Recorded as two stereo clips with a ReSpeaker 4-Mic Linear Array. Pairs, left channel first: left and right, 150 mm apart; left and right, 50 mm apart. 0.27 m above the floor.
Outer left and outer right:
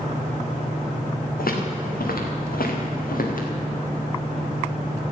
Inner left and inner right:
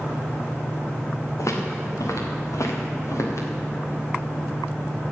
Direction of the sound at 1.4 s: 80° left.